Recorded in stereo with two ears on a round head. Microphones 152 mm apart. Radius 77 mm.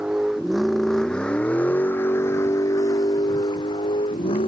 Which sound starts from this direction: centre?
A vehicle, at 0.0 s.